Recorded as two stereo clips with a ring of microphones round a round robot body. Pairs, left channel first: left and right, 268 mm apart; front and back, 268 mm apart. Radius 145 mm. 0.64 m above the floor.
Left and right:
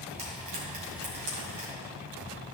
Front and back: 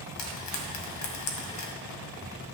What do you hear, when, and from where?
0.2 s frying: 20° right, 1.7 m